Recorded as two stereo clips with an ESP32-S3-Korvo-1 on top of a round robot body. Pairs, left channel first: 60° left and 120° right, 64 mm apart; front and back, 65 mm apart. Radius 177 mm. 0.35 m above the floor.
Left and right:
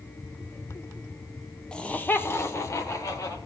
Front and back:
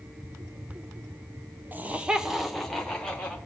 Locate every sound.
1.7 s laughter: 130° left, 1.5 m; by 3.4 s 70° left, 2.5 m